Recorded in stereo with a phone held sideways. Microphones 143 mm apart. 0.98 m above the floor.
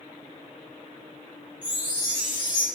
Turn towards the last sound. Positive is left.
turn(degrees=75)  # may be behind; listen again after turning